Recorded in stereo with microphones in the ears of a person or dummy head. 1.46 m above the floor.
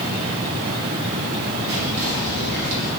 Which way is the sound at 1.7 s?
55° right (ahead or behind).